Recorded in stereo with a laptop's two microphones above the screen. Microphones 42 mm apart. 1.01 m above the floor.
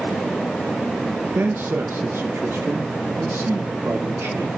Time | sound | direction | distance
1.4 | a man speaking | 55° right (ahead or behind) | 0.8 m